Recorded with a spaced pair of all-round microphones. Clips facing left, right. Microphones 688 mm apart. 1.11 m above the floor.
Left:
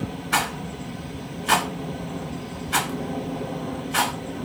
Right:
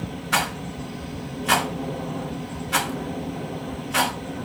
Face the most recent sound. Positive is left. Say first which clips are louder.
# even
turn(degrees=-15)  # may be behind; listen again after turning